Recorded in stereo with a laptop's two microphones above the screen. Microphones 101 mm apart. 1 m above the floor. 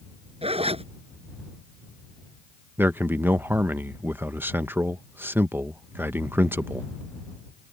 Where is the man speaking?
20° right (ahead or behind).